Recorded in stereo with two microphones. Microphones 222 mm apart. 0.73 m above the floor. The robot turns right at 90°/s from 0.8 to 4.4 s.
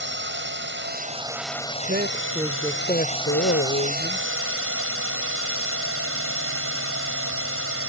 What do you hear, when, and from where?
0.0 s a drone: 60° right; by 7.9 s 95° right
1.9 s a man speaking: 60° right; by 4.2 s 155° left